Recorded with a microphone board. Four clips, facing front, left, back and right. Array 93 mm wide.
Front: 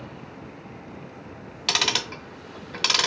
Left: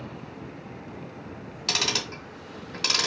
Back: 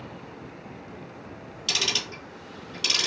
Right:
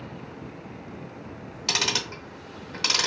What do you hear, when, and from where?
1.7 s ticking: 5° right, 0.6 m